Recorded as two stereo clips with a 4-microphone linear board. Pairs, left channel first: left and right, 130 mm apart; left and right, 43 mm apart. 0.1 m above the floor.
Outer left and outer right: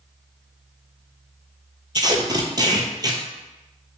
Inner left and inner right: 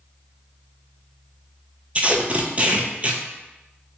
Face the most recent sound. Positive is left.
turn(degrees=-30)  # may be behind; listen again after turning